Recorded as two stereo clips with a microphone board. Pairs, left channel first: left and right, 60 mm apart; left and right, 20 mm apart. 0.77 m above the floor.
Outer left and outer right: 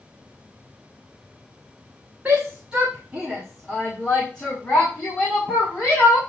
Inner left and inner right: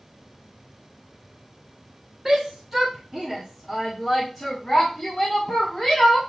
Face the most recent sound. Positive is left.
turn(degrees=20)  # may be behind; listen again after turning